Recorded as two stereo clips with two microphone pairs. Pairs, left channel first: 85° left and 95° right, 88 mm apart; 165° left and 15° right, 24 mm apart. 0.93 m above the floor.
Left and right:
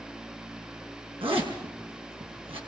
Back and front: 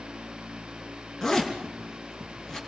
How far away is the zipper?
About 5.5 m.